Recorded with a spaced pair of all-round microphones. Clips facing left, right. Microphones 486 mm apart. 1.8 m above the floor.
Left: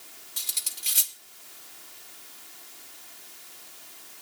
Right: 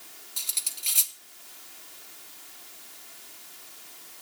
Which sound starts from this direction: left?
Cutlery clinking, at 0.4 s.